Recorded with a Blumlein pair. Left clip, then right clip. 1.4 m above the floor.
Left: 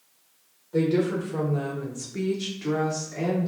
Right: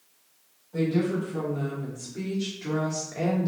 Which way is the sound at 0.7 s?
65° left.